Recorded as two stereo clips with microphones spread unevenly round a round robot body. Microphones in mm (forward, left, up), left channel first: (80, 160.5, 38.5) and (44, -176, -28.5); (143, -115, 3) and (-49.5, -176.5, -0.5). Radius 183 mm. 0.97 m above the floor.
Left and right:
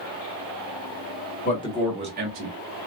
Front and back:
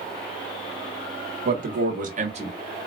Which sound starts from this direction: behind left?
A man speaking, at 1.4 s.